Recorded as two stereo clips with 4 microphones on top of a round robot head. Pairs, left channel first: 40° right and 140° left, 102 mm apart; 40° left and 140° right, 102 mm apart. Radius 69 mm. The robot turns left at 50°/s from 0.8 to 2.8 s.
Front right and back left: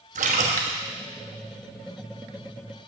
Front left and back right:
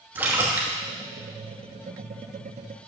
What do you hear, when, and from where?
0.1 s a splash: 145° left, 1.1 m